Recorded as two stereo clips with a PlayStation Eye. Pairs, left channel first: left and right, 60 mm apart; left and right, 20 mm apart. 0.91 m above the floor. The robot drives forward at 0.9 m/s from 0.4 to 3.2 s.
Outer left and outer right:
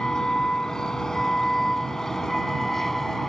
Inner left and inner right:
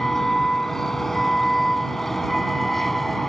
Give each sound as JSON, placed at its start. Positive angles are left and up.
{"t": 0.0, "sound": "a vehicle", "side_deg": 10}